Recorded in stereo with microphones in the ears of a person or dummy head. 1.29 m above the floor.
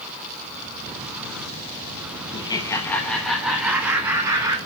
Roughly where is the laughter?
Left.